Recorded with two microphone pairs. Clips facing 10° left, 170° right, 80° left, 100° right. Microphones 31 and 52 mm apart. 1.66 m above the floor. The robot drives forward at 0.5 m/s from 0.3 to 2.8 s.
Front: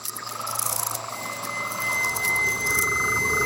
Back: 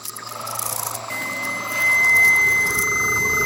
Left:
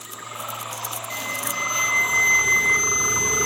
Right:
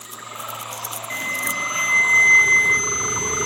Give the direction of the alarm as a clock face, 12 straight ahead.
6 o'clock.